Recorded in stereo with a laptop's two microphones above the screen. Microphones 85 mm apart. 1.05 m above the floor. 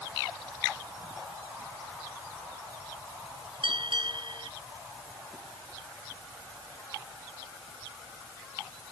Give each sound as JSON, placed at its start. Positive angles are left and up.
{"t": 3.6, "sound": "a bell", "side_deg": -75}